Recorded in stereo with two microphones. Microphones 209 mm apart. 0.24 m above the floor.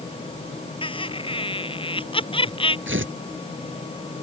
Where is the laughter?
25° left (ahead or behind).